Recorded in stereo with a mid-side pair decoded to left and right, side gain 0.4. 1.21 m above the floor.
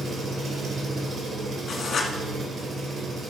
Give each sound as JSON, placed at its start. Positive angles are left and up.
{"t": 0.0, "sound": "an engine running", "azimuth_deg": -55, "distance_m": 2.5}
{"t": 1.7, "sound": "writing", "azimuth_deg": 50, "distance_m": 1.8}